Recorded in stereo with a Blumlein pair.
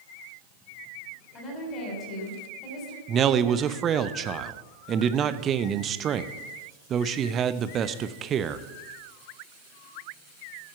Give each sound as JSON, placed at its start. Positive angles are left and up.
{"t": 1.3, "sound": "a woman speaking", "azimuth_deg": 25, "distance_m": 3.5}
{"t": 3.1, "sound": "a man speaking", "azimuth_deg": -25, "distance_m": 0.7}